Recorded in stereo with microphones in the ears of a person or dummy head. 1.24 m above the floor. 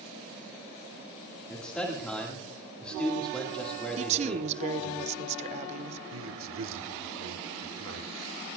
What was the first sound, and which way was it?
A man speaking, 5° left (ahead or behind).